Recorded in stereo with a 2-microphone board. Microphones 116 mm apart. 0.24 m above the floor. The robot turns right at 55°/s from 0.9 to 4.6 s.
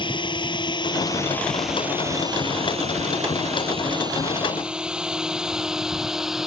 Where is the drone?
45° left (ahead or behind); by 6.5 s 5° right (ahead or behind).